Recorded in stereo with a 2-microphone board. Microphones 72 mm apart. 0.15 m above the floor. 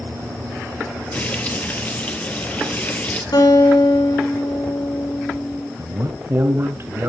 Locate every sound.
1.1 s frying: 25° left (ahead or behind), 2.5 m
3.3 s a guitar: 80° left, 7.5 m
5.8 s a man speaking: 35° right (ahead or behind), 1.7 m